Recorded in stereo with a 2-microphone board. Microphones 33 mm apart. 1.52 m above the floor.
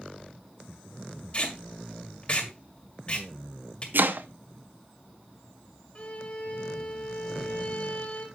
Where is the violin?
40° left (ahead or behind), 2 m.